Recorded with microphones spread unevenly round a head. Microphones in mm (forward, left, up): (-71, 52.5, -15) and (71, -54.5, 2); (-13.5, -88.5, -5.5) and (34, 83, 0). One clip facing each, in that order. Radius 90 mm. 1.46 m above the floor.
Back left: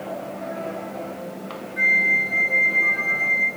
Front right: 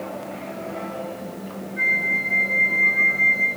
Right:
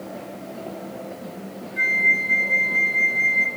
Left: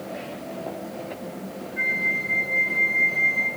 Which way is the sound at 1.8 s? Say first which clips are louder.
Back left 1 dB, right 1 dB; 150° right.